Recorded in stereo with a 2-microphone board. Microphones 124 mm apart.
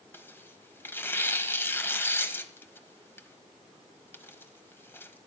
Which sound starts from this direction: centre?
Tearing paper, at 0.1 s.